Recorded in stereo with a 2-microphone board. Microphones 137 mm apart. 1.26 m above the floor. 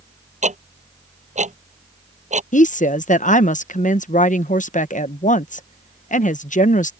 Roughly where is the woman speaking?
Left.